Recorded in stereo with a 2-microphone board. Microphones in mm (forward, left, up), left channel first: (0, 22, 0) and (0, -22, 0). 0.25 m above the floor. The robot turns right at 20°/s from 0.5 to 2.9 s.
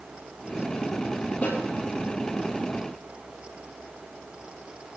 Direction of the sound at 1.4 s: 40° left (ahead or behind).